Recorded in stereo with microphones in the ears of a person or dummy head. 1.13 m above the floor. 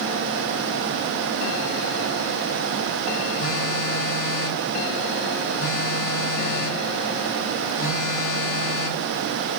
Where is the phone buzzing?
55° left (ahead or behind), 2 m.